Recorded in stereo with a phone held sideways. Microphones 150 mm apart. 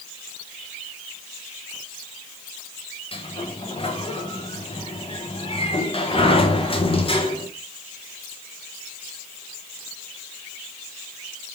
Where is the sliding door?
40° left (ahead or behind), 0.7 m.